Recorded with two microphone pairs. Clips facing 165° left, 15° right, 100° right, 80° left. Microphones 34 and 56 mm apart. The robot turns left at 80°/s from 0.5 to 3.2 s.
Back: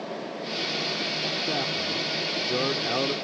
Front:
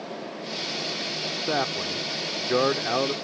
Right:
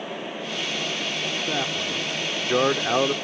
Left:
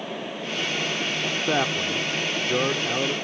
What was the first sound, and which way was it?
A man speaking, 40° left.